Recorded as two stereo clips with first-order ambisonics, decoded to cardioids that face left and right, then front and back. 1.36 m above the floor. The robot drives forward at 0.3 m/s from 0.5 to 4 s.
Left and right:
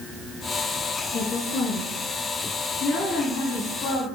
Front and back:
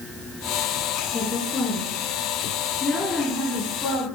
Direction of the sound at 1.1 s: 60° left.